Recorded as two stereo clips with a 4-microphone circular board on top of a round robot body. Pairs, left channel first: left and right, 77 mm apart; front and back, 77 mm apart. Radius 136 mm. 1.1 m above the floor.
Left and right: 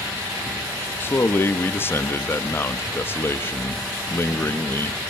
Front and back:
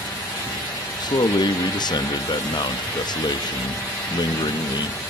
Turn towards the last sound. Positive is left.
turn(degrees=30)